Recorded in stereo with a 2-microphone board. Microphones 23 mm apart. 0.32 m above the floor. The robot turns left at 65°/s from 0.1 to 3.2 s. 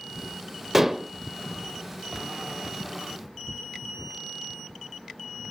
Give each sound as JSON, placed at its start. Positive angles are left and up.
{"t": 0.7, "sound": "dishes clattering", "side_deg": -15, "distance_m": 0.5}